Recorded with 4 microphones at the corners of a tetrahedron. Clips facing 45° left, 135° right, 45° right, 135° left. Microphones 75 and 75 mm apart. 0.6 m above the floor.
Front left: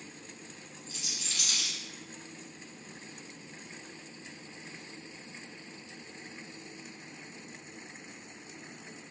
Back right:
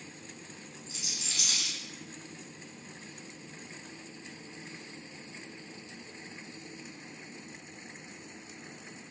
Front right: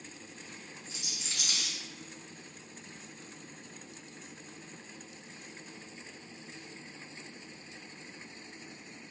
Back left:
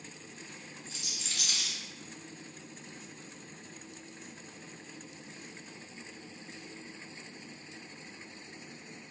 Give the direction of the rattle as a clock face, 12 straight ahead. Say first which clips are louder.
Front left 1 dB, even; 3 o'clock.